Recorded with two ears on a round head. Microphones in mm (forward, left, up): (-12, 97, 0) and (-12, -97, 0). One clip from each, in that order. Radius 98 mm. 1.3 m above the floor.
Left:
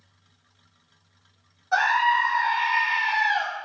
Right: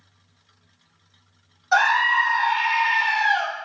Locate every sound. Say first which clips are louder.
1.7 s a scream: right 3 dB; 60° right (ahead or behind), 3 m